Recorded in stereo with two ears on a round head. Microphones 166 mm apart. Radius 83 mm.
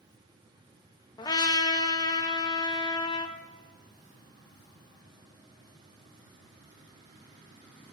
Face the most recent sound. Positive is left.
turn(degrees=20)  # may be behind; listen again after turning